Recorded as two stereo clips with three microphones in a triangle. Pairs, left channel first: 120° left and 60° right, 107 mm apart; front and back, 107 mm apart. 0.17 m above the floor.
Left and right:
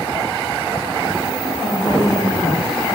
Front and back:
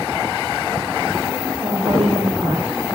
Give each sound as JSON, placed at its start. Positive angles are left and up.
{"t": 1.6, "sound": "a woman speaking", "azimuth_deg": -170, "distance_m": 4.0}